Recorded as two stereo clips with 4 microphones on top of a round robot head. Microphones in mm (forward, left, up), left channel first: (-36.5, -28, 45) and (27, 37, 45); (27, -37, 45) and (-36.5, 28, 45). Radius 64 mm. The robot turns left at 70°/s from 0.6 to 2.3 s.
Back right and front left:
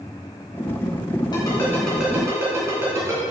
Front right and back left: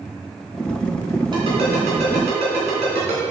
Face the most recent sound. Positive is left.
turn(degrees=110)